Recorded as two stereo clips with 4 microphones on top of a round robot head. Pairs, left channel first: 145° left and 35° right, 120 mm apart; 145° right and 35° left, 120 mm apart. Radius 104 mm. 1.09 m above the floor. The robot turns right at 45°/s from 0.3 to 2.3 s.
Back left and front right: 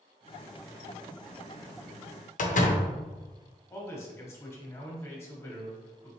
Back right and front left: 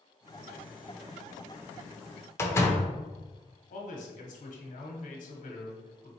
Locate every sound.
2.4 s a door slam: 145° left, 0.8 m
3.7 s a man speaking: 150° right, 1.3 m